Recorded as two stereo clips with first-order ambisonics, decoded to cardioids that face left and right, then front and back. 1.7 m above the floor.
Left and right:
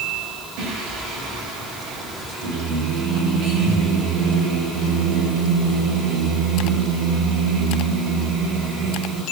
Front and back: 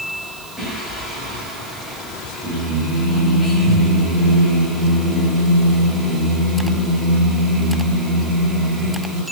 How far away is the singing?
About 6.5 m.